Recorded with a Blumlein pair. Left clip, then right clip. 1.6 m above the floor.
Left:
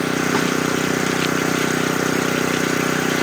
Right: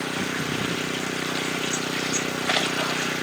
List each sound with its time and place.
0.0 s an engine running: 60° left